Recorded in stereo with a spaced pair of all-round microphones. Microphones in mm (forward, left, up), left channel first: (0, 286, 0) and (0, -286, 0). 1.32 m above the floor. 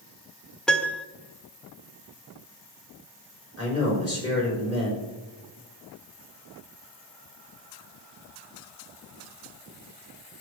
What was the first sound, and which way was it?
A piano, centre (ahead or behind).